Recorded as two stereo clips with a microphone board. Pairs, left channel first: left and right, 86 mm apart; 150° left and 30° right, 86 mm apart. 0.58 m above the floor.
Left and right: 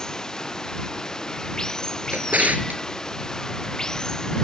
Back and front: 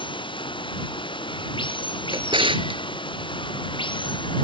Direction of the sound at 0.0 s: 170° left.